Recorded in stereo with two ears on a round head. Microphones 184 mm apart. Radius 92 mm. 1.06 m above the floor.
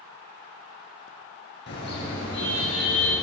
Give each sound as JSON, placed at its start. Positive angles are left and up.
{"t": 1.7, "sound": "a car horn", "side_deg": 60, "distance_m": 7.0}